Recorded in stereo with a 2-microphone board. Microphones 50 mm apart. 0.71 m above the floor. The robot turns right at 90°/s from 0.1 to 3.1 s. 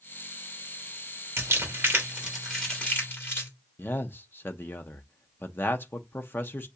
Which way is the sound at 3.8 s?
45° left (ahead or behind).